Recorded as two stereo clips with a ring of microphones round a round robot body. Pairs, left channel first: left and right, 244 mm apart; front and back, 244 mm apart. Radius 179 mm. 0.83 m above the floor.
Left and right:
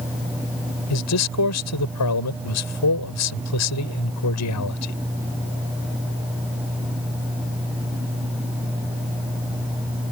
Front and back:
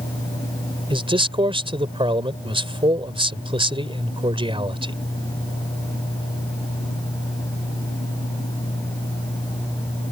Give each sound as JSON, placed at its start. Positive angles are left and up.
{"t": 0.9, "sound": "a man speaking", "azimuth_deg": 110}